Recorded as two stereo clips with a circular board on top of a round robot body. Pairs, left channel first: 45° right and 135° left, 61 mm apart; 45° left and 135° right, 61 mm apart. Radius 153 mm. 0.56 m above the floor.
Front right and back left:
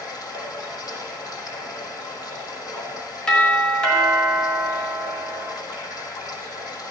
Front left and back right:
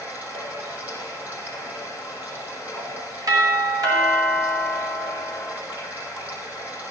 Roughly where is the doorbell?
Behind right.